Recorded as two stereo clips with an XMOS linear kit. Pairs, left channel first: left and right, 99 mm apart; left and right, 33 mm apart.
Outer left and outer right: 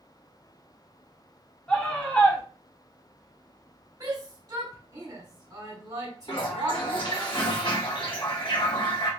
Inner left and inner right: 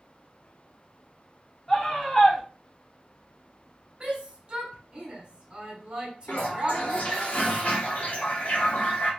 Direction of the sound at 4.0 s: 45° right (ahead or behind).